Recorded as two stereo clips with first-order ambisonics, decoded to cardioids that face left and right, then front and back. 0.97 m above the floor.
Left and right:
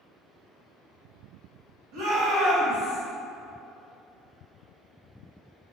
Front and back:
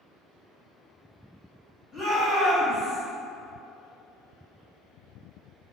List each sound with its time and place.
1.9 s a shout: 85° right, 1.9 m; by 3.0 s 100° right, 1.1 m